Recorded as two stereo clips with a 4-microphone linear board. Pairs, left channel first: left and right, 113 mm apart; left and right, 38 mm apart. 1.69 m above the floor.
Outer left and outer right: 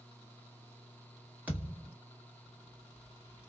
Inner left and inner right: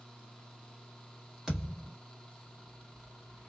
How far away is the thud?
About 1.4 m.